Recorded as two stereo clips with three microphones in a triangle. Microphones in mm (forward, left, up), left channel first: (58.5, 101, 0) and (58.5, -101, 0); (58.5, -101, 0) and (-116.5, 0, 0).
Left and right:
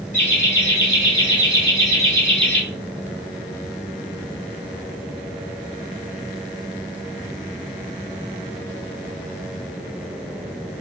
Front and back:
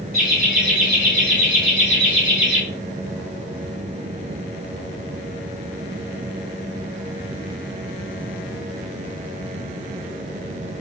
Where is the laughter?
130° left, 2 m; by 2.6 s 175° left, 2.5 m.